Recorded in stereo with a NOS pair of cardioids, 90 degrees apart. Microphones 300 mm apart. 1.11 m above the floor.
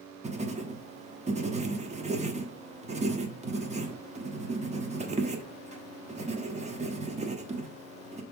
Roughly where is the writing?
Ahead right.